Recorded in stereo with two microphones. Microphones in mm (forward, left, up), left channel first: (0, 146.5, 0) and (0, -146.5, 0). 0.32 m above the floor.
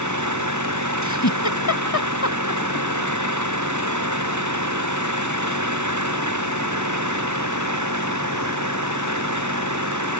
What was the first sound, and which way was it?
An engine running, 80° right.